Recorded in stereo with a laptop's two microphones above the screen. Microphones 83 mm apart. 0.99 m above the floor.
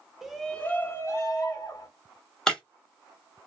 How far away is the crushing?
No crushing in this recording.